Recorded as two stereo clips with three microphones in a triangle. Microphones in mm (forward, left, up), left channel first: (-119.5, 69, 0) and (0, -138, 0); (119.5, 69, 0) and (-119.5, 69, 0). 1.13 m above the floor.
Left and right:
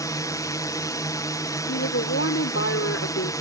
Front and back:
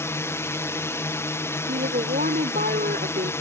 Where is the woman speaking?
130° left.